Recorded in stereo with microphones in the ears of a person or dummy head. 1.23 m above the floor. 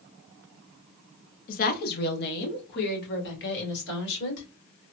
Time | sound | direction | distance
1.5 | a woman speaking | 45° left (ahead or behind) | 0.7 m